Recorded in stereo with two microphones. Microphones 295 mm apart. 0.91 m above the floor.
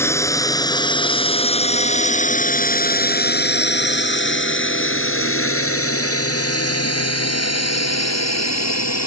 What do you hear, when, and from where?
0.0 s a drone: 10° left (ahead or behind); by 9.1 s 65° left (ahead or behind)